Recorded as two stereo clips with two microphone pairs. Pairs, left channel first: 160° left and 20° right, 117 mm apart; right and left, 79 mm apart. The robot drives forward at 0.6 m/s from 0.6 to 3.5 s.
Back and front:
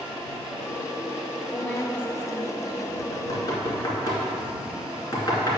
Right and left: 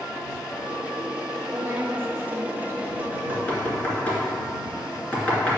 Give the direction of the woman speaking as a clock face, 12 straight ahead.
9 o'clock.